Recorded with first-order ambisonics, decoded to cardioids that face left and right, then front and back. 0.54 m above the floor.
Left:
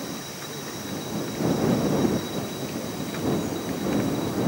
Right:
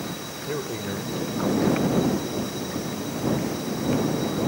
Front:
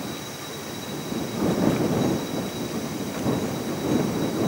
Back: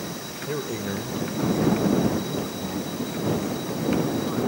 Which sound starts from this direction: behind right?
A man speaking, at 0.5 s.